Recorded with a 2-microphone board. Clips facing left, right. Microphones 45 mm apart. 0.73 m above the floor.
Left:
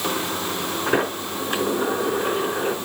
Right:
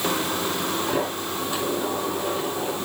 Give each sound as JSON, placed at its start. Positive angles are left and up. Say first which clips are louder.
{"t": 0.9, "sound": "a sliding door", "louder": "left 3 dB", "side_deg": 55, "distance_m": 5.0}